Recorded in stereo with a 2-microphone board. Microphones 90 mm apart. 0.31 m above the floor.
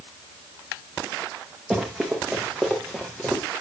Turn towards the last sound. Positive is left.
turn(degrees=10)  # may be behind; listen again after turning